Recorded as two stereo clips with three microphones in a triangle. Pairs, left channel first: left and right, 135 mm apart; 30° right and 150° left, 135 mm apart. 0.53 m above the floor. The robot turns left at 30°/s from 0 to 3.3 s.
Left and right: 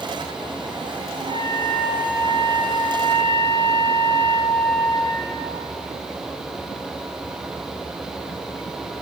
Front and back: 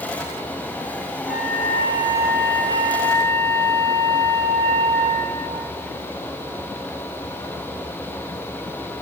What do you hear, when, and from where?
1.3 s a flute: 40° right, 2.5 m; by 5.4 s 100° right, 2.5 m